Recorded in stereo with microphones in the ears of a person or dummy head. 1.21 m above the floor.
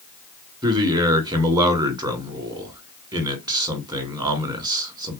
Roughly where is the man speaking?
Right.